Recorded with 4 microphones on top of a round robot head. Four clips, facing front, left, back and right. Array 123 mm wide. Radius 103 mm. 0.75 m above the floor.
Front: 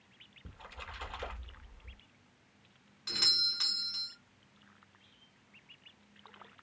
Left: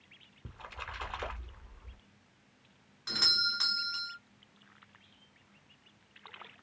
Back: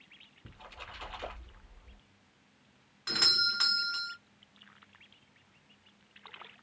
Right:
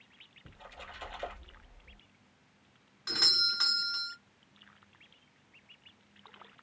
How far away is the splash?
About 2 m.